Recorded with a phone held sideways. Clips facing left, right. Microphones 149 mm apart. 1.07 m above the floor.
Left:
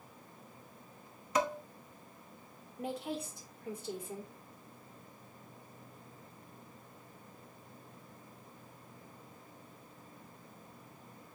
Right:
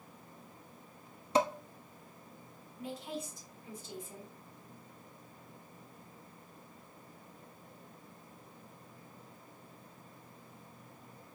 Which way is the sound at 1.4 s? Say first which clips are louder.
Right 3 dB; 30° right (ahead or behind).